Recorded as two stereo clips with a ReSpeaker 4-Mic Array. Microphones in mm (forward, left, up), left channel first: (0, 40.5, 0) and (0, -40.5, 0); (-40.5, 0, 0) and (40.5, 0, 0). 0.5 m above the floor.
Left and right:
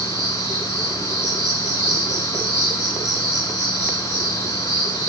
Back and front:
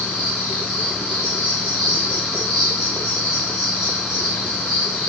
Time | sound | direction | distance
0.0 | an insect | 10° right | 7 m